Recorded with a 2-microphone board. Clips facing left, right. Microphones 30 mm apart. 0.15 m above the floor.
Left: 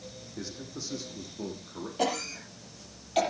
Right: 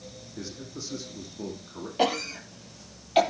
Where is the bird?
I don't hear a bird.